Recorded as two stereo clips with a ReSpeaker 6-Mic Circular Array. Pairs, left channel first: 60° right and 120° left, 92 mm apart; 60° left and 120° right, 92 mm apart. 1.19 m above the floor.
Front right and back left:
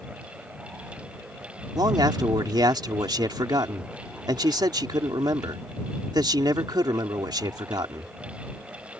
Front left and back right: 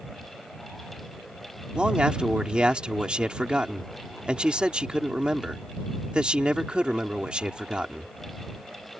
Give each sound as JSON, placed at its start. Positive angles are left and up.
{"t": 1.8, "sound": "a man speaking", "azimuth_deg": 160}